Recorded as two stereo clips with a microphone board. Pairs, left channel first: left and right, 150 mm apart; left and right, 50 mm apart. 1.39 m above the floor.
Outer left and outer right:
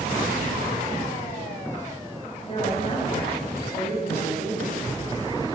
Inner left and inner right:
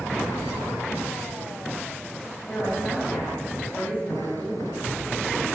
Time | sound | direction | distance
2.4 | a woman speaking | 45° left (ahead or behind) | 10 m